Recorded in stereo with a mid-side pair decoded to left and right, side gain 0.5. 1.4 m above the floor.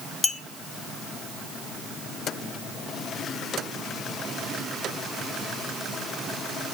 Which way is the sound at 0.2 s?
15° left.